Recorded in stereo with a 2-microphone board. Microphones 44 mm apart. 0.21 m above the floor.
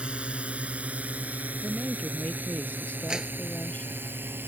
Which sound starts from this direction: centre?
A clap, at 3.1 s.